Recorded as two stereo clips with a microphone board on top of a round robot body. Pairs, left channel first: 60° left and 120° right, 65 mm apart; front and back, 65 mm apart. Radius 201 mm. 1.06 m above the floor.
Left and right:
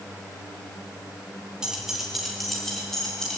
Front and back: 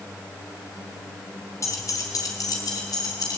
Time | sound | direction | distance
1.6 | keys jangling | 40° right | 2.5 m